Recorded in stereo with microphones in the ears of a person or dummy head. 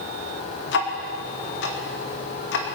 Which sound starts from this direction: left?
Ticking, at 0.7 s.